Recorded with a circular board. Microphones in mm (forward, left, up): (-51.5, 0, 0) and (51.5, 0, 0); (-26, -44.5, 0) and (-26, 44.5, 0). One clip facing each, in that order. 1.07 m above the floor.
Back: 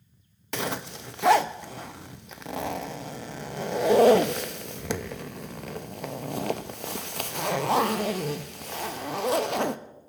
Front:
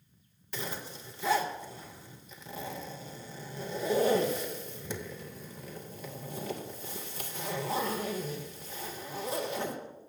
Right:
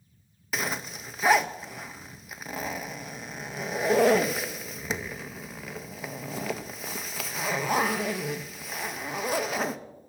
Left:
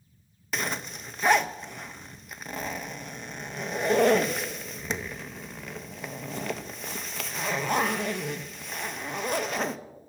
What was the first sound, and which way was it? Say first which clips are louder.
A zipper: back 8 dB, even; straight behind.